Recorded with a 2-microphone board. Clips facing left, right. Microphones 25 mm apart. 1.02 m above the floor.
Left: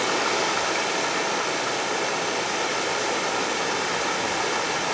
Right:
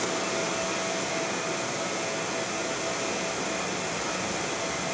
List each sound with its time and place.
0.0 s running water: 65° left (ahead or behind), 1.4 m